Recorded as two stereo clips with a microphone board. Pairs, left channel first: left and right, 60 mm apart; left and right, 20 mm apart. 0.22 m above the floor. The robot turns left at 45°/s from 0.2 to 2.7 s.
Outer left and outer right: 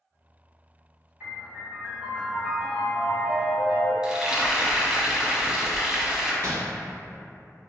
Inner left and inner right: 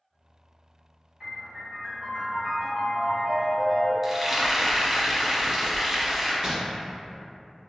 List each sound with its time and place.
1.2 s a piano: 25° right (ahead or behind), 1.7 m; by 3.9 s 15° right (ahead or behind), 1.7 m
4.0 s frying: 15° right (ahead or behind), 0.6 m
6.4 s crumpling: 50° right (ahead or behind), 1.2 m